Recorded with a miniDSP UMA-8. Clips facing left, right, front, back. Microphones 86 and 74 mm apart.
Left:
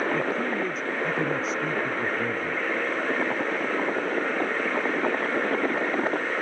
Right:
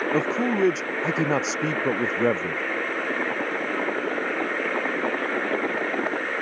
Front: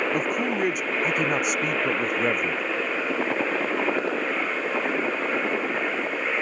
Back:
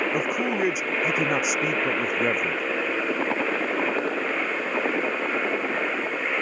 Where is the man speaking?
95° right.